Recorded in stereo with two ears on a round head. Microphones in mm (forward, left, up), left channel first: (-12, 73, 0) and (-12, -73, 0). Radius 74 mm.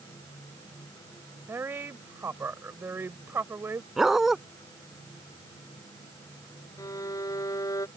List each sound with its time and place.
1.5 s a woman speaking: 15° right (ahead or behind)
4.0 s a dog barking: 5° right (ahead or behind)
6.8 s a violin: 20° left (ahead or behind)